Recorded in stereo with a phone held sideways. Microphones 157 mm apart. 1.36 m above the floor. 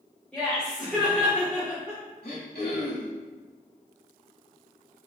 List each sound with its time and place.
0.3 s laughter: 5° left (ahead or behind), 1.9 m; by 2.0 s 20° right (ahead or behind), 1.4 m
2.2 s throat clearing: 75° left (ahead or behind), 1.8 m